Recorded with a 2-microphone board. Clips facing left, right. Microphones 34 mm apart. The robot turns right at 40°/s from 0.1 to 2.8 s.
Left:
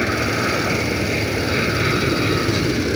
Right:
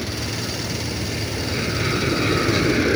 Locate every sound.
0.0 s an aircraft: 90° left; by 3.0 s 165° right